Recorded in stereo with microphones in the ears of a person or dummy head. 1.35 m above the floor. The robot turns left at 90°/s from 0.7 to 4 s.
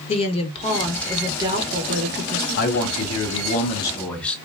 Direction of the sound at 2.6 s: 135° left.